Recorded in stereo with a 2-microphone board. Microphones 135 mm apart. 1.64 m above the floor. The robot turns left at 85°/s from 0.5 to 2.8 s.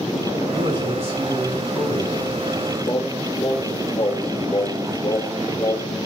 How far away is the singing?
About 2.5 m.